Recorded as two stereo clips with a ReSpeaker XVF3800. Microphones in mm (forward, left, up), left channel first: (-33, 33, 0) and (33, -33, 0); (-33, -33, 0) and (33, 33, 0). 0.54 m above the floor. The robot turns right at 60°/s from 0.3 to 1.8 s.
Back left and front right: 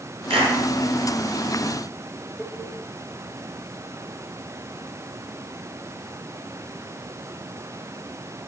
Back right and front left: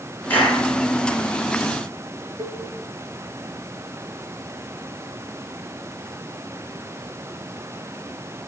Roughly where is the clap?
Ahead right.